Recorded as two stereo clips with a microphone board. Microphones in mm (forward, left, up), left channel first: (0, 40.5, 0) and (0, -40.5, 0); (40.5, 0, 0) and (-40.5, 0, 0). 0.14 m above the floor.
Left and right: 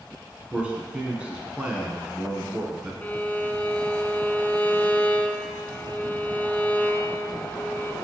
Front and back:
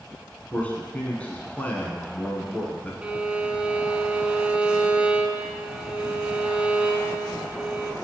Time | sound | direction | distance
0.5 | a man speaking | 40° right | 1.1 m
3.0 | a violin | 125° left | 0.5 m